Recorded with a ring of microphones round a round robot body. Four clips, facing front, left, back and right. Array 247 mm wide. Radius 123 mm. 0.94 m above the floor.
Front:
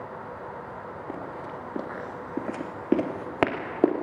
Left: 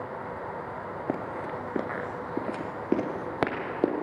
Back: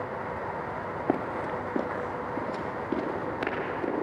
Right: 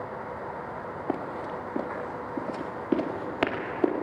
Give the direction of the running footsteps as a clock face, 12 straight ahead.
7 o'clock.